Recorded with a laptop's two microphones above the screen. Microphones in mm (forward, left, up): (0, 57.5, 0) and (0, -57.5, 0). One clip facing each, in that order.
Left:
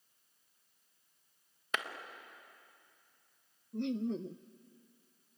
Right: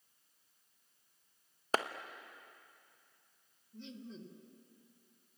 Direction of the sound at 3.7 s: 60° left (ahead or behind).